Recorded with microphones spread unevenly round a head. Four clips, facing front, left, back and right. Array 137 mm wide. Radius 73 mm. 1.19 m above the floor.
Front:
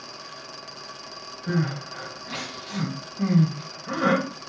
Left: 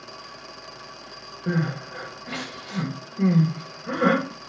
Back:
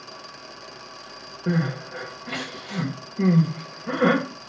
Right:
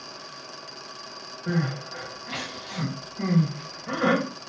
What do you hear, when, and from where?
1.5 s crying: 155° left, 1.9 m